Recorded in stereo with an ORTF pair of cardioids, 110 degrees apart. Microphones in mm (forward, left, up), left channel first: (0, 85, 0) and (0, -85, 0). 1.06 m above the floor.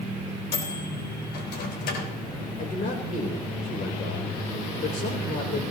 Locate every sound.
0.5 s a microwave: 70° left, 3.5 m
2.6 s a man speaking: 50° left, 4 m